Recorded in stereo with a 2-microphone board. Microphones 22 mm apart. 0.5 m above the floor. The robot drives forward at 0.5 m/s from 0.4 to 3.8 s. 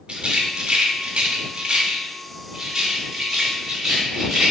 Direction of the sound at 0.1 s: 50° right (ahead or behind).